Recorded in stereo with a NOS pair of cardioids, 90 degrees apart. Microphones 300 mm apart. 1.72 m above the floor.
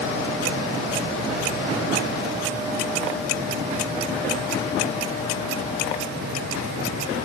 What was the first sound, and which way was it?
Only background noise.